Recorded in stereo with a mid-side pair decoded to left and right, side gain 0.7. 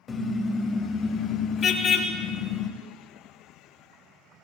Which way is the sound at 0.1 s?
25° left.